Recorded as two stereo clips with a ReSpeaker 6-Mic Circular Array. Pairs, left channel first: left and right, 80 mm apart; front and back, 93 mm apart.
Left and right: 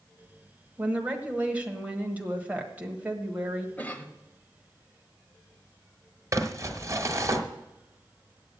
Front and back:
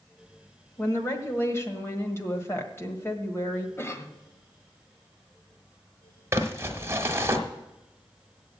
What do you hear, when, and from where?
0.8 s a woman speaking: 35° right, 1.4 m
3.8 s a cough: 35° left, 1.1 m
6.3 s crumpling: 125° right, 1.2 m